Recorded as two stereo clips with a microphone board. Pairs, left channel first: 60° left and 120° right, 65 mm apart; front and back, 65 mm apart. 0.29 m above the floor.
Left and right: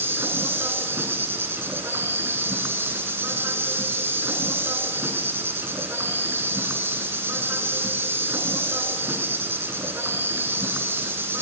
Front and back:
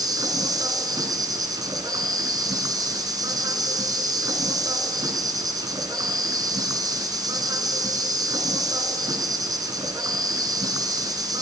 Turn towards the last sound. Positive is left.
turn(degrees=-175)